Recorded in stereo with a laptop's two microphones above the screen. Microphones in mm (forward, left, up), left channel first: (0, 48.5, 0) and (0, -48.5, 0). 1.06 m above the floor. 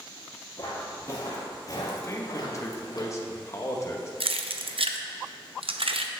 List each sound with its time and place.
0.6 s footsteps: 30° left (ahead or behind), 2 m; by 3.0 s 50° left (ahead or behind), 1.4 m
2.0 s a man speaking: 30° left (ahead or behind), 0.8 m
4.2 s keys jangling: 80° right, 0.6 m